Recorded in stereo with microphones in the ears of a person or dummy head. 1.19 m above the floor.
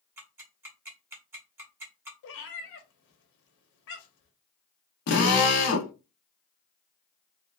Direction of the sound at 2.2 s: 70° left (ahead or behind).